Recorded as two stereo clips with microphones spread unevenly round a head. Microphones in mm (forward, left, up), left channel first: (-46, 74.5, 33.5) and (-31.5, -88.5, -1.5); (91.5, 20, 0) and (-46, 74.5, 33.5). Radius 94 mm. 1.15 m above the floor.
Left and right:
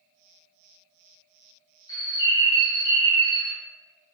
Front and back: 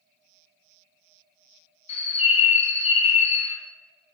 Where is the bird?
20° left, 0.7 m.